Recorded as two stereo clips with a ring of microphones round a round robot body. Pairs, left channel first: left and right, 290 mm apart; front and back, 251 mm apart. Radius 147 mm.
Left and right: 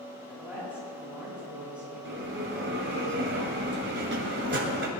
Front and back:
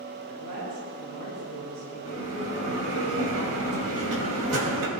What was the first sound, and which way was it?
A woman speaking, 175° right.